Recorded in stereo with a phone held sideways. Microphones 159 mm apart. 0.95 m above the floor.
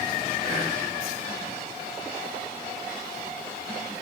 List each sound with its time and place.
0.4 s whispering: 45° right (ahead or behind), 1.2 m